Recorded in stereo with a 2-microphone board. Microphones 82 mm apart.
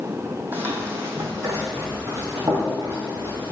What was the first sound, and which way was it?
Running footsteps, 20° right (ahead or behind).